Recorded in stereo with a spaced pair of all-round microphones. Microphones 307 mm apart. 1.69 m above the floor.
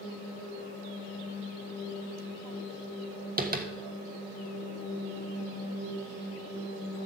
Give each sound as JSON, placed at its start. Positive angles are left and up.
{"t": 3.4, "sound": "tapping", "side_deg": -30, "distance_m": 1.3}